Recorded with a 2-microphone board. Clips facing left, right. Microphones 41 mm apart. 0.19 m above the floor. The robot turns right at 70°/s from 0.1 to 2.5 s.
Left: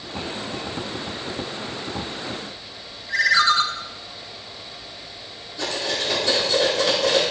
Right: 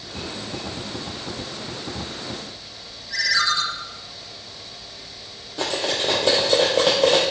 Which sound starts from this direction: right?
Cutlery clinking, at 5.6 s.